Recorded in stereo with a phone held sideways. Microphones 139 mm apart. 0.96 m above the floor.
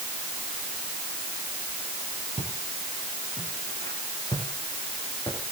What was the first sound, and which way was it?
Footsteps, 40° left (ahead or behind).